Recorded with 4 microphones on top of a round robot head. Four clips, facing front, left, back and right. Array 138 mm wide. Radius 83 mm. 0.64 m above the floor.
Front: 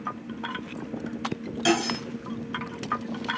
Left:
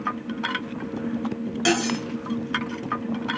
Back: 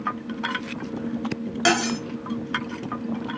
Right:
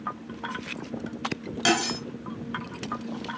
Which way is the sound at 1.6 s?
170° right.